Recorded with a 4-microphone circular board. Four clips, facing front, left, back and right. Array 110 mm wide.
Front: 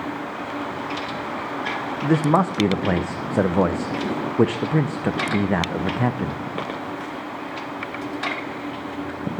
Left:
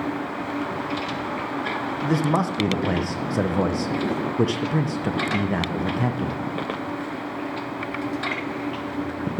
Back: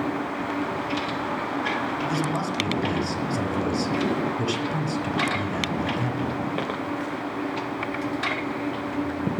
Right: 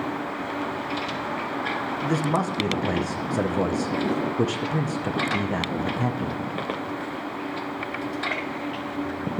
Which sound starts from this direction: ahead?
A man speaking, at 2.0 s.